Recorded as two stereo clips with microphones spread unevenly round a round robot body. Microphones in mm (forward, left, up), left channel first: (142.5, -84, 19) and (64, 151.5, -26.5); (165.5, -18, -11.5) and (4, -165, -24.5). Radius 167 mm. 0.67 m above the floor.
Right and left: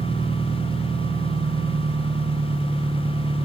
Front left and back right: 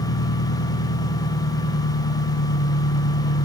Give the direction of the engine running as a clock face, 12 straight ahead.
11 o'clock.